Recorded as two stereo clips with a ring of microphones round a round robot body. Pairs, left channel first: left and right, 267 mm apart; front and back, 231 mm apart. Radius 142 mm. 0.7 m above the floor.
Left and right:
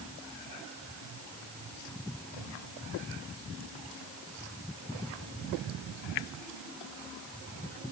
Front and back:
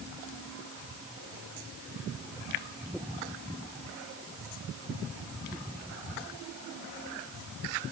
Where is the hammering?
I don't hear hammering.